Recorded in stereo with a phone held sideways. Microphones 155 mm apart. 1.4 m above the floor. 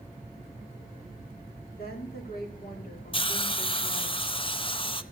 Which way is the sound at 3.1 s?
35° left (ahead or behind).